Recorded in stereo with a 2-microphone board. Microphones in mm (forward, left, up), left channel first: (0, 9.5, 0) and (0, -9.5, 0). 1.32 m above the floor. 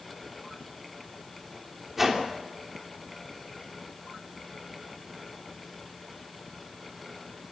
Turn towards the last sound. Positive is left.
turn(degrees=-5)  # may be behind; listen again after turning